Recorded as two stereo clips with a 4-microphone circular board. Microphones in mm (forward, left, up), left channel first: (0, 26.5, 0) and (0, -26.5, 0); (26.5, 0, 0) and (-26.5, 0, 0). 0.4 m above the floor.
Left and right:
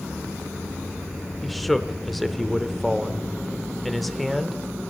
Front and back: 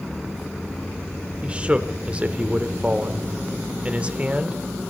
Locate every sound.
1.4 s a man speaking: 175° left, 0.8 m